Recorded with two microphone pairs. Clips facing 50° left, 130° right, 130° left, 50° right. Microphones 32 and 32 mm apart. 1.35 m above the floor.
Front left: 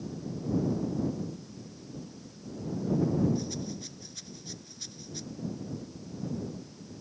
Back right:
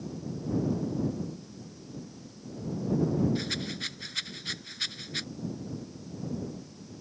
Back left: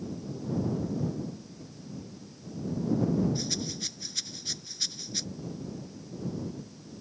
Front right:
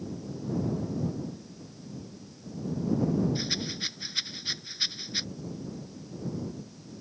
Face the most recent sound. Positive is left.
turn(degrees=-105)